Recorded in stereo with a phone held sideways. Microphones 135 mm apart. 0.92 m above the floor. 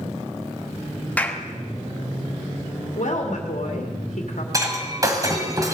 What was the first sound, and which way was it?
A clap, 10° left (ahead or behind).